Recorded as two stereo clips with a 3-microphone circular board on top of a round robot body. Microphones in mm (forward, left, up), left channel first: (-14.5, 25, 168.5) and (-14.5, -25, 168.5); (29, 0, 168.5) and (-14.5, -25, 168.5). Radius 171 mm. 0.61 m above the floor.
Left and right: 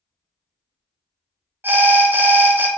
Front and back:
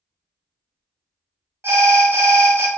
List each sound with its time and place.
1.6 s an alarm: 130° right, 0.7 m